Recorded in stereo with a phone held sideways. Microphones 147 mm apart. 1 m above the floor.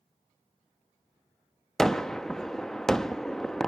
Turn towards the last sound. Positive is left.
turn(degrees=5)  # may be behind; listen again after turning